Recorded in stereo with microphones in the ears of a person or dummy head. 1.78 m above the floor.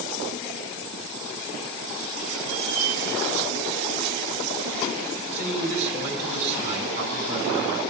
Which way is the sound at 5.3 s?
45° right (ahead or behind).